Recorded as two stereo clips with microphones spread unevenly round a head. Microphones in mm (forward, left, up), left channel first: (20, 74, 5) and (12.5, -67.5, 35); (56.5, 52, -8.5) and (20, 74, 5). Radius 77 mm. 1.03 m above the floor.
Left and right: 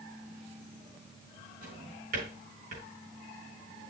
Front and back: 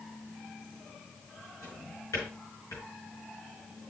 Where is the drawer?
65° right, 6 m.